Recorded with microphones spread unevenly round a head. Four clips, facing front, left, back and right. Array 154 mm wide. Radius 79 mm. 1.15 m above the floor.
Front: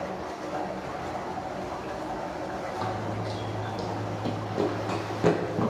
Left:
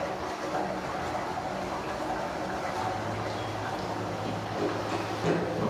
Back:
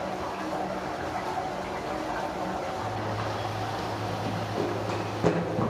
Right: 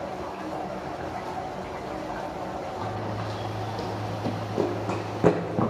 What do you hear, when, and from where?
2.8 s running footsteps: 40° right, 1.9 m; by 5.7 s 85° right, 2.5 m